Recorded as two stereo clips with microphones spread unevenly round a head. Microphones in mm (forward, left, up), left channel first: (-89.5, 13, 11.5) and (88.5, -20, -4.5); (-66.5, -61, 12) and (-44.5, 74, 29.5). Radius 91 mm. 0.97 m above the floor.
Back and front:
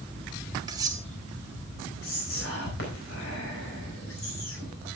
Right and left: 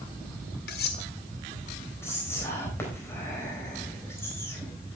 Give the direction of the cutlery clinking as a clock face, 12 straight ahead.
3 o'clock.